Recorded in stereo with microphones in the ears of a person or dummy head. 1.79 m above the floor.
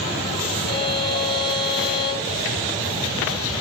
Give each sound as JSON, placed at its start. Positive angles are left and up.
{"t": 0.7, "sound": "a violin", "side_deg": 45, "distance_m": 2.5}